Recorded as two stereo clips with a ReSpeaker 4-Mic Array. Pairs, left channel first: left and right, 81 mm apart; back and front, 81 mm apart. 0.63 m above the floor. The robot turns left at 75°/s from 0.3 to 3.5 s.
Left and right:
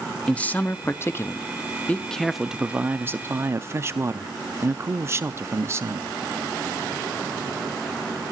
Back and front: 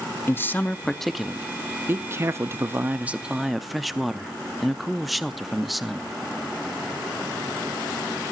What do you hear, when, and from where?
0.3 s a man speaking: 150° left, 0.6 m; by 6.1 s 90° right, 0.6 m